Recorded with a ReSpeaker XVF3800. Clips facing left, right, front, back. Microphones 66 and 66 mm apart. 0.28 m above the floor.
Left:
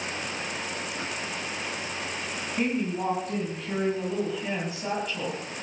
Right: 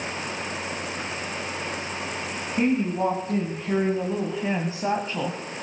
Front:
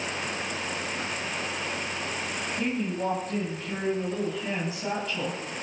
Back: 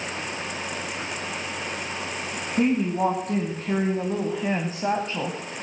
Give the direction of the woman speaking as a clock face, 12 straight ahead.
5 o'clock.